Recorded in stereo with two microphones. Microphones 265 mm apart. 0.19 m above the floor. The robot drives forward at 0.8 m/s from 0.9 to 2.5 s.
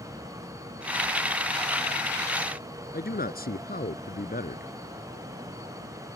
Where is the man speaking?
35° left (ahead or behind).